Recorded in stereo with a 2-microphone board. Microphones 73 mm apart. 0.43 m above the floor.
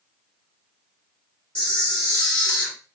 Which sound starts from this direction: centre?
A camera shutter, at 1.6 s.